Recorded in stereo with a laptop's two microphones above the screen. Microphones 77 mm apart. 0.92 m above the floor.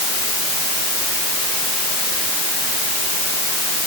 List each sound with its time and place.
Only background noise.